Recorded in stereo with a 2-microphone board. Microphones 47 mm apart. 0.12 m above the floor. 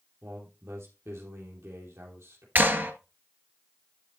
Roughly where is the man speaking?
Right.